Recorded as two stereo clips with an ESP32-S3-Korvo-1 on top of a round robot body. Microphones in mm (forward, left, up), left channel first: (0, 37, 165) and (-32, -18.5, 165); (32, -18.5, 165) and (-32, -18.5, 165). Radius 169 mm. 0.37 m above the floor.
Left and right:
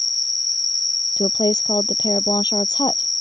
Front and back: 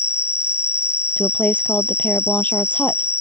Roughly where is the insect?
Ahead left.